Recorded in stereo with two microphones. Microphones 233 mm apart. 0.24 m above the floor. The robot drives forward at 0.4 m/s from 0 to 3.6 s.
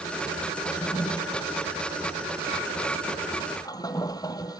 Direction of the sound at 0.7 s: 20° left (ahead or behind).